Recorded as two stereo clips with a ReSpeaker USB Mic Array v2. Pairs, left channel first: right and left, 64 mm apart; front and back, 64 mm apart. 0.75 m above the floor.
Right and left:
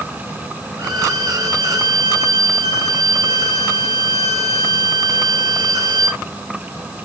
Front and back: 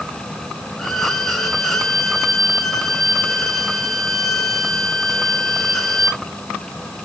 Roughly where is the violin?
Left.